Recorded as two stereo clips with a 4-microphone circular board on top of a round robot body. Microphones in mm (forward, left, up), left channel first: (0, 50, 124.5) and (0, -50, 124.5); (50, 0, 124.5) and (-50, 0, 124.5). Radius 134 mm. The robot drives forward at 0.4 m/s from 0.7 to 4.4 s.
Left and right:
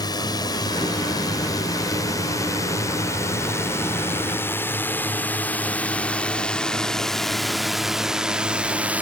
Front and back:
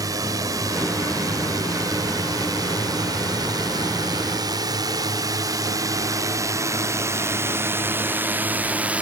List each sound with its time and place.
0.0 s a drone: 130° left; by 9.0 s 130° right